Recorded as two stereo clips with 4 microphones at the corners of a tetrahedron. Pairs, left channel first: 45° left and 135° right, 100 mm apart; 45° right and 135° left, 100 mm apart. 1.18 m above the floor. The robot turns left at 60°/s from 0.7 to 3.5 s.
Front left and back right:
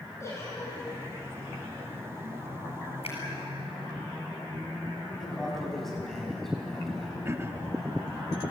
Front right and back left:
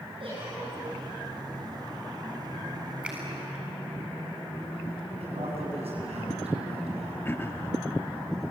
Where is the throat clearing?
95° right, 0.7 m.